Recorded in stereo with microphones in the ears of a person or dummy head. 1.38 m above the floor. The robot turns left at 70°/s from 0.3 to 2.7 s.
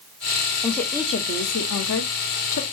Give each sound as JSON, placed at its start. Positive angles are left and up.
{"t": 0.6, "sound": "a woman speaking", "azimuth_deg": -175, "distance_m": 0.9}